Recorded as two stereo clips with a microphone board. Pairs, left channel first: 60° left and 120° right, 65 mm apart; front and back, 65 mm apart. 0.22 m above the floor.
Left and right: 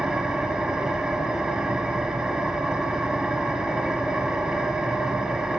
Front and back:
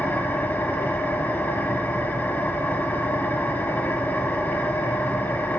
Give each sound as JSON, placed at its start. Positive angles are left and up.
{"t": 0.0, "sound": "an engine running", "azimuth_deg": -45, "distance_m": 0.9}